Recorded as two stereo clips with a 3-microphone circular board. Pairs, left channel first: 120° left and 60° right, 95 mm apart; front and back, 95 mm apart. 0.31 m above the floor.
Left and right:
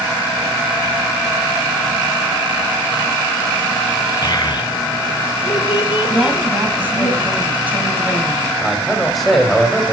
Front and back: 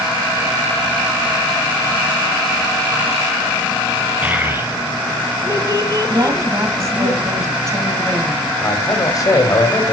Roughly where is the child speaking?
Behind left.